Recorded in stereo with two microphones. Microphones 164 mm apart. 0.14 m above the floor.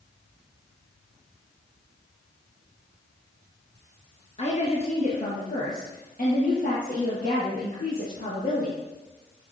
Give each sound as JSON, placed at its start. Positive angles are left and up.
{"t": 4.4, "sound": "a woman speaking", "side_deg": 45, "distance_m": 1.8}